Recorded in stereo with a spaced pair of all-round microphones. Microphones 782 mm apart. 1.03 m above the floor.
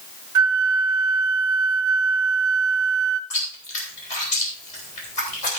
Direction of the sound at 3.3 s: 60° left (ahead or behind).